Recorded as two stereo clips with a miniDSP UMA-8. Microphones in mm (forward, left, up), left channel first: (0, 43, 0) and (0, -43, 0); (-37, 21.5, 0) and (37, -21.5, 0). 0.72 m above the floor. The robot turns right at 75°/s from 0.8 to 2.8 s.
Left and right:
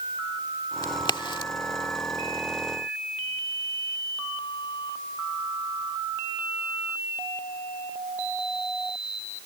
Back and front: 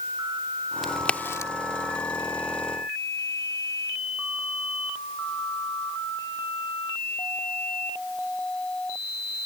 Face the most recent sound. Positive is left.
turn(degrees=-160)